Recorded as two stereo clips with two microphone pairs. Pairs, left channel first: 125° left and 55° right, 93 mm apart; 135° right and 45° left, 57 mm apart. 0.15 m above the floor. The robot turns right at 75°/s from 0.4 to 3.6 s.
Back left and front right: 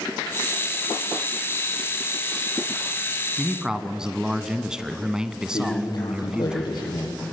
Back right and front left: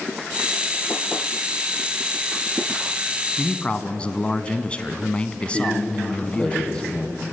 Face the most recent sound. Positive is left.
turn(degrees=155)